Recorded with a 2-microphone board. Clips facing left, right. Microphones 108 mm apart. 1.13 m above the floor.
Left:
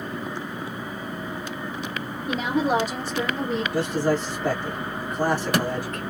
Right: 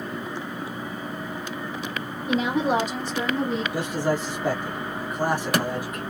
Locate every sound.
2.3 s a woman speaking: 5° right (ahead or behind), 1.2 m; by 3.6 s 25° right (ahead or behind), 1.7 m
3.7 s a man speaking: 15° right (ahead or behind), 1.3 m